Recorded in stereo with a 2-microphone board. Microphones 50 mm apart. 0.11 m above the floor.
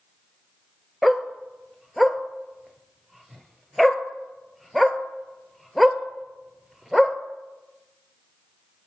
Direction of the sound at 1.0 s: Centre (ahead or behind).